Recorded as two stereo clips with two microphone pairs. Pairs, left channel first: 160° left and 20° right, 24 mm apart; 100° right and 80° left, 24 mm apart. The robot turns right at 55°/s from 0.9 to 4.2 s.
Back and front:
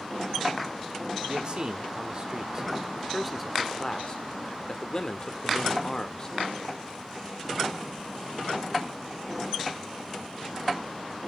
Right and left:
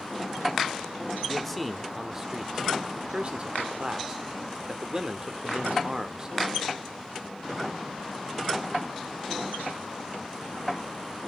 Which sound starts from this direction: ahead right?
A man speaking, at 1.3 s.